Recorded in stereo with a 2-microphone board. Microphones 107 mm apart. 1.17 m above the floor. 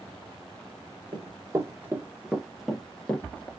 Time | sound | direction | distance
1.1 | running footsteps | 35° right (ahead or behind) | 1.4 m